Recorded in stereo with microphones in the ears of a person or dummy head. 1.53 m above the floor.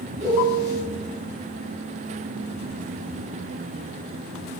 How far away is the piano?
About 2.5 m.